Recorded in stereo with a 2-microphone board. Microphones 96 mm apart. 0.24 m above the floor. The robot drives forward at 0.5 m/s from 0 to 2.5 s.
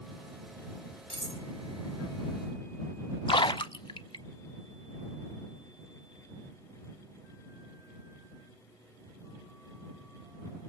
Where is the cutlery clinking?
70° right (ahead or behind), 3 m; by 1.4 s 75° right (ahead or behind), 3 m.